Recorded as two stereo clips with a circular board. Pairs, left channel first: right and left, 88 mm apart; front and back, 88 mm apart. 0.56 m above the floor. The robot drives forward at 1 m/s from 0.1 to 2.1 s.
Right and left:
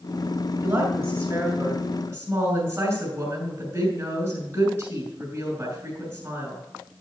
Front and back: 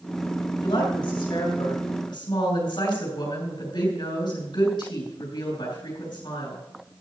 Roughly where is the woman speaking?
Ahead.